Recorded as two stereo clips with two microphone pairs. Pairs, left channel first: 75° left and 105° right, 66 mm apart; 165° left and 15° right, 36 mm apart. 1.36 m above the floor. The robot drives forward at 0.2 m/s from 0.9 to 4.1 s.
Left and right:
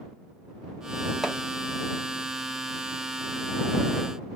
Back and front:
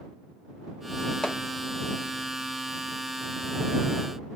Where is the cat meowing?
No cat meowing in this recording.